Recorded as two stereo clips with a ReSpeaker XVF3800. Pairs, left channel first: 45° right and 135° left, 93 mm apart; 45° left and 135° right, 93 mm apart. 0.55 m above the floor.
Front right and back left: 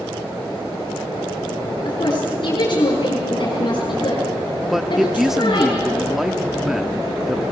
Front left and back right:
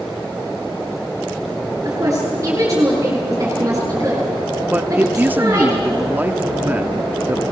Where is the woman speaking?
75° right, 7 m.